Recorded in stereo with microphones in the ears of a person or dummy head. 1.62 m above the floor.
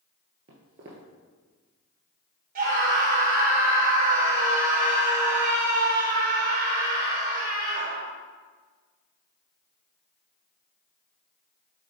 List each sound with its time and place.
0.5 s footsteps: 25° right (ahead or behind), 1.7 m
2.5 s a scream: 50° right (ahead or behind), 2.5 m